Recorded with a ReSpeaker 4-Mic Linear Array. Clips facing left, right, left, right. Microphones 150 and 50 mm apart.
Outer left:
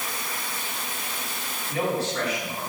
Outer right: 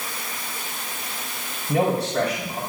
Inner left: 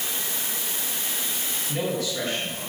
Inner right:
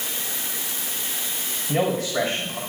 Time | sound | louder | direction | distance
1.7 | a man speaking | outer right 5 dB, inner right 5 dB | 85° right | 4.5 m